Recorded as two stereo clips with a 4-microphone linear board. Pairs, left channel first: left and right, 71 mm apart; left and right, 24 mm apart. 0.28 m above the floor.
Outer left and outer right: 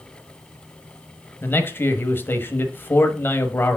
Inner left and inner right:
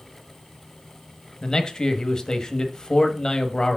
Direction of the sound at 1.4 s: 30° left (ahead or behind).